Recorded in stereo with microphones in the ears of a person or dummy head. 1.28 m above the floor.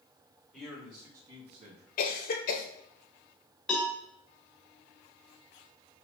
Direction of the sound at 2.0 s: 55° left (ahead or behind).